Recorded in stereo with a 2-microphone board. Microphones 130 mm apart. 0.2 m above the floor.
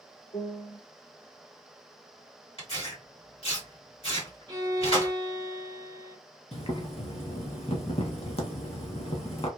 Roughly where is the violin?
Right.